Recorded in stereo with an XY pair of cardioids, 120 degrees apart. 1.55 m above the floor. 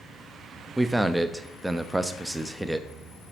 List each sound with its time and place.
0.8 s a man speaking: 5° right, 0.6 m